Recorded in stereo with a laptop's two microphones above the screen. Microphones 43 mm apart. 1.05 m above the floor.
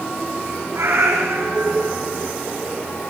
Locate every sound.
0.7 s a cat meowing: 85° right, 9.5 m